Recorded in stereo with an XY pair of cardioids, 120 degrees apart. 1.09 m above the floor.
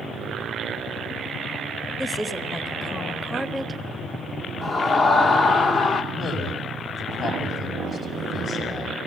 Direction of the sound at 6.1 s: 50° left.